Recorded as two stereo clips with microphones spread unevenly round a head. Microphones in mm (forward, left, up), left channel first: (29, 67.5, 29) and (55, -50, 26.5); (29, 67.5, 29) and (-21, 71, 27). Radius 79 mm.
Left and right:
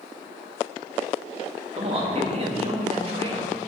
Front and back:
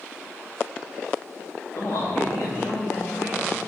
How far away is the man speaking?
About 2 m.